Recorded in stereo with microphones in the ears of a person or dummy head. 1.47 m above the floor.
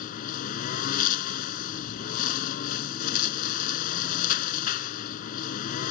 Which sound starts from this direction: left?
A lawn mower, at 0.0 s.